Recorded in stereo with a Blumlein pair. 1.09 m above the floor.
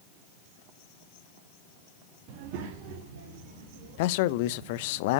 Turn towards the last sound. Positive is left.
turn(degrees=50)